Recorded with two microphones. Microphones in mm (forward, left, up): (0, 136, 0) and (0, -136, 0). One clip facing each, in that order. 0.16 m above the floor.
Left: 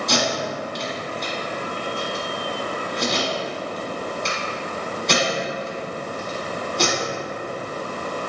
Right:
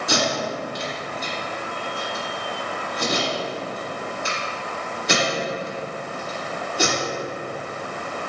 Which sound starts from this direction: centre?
Tape being pulled, at 0.1 s.